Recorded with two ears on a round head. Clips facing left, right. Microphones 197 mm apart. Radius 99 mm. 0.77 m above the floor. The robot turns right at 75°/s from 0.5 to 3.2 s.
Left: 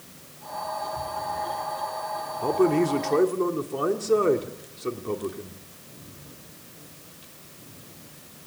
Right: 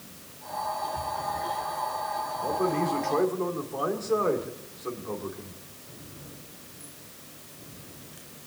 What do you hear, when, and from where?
2.4 s a man speaking: 75° left, 2 m; by 5.6 s 135° left, 2 m